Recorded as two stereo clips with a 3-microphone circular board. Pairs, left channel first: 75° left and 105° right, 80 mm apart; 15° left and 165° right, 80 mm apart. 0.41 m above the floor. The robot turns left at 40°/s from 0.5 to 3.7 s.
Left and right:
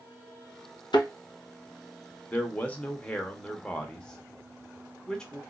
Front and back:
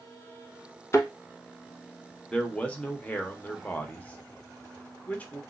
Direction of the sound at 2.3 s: 65° left.